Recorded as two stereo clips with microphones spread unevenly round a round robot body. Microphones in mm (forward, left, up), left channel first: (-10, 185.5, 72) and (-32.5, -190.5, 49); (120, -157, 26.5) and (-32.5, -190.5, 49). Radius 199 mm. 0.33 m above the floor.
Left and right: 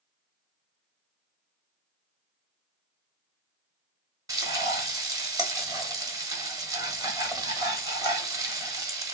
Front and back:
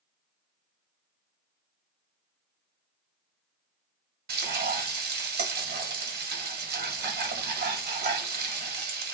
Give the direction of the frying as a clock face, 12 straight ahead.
6 o'clock.